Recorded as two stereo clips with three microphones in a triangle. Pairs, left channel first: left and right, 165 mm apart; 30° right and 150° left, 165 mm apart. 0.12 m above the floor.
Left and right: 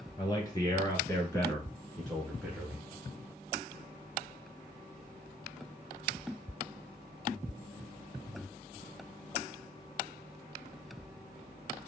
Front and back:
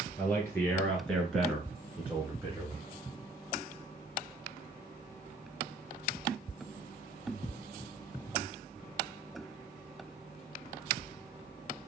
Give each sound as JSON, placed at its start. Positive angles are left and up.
{"t": 0.2, "sound": "a man speaking", "azimuth_deg": 35, "distance_m": 1.9}